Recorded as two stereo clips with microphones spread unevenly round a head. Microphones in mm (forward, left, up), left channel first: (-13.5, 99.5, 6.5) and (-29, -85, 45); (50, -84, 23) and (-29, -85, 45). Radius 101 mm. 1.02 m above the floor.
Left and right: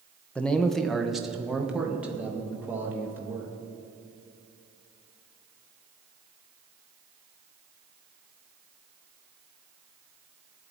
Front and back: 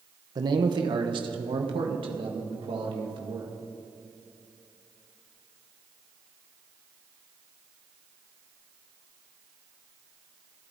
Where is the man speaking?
150° left, 1.0 m; by 3.5 s straight behind, 2.5 m.